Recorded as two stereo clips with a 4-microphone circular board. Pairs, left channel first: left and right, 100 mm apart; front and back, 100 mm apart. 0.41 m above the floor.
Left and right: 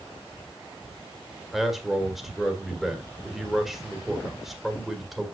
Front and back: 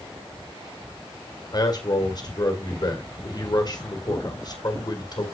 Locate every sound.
1.5 s a man speaking: 5° right, 1.9 m